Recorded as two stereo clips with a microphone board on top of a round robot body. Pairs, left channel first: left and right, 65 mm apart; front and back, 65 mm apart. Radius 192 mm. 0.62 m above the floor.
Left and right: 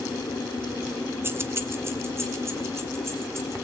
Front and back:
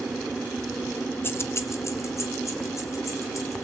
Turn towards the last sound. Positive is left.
turn(degrees=-40)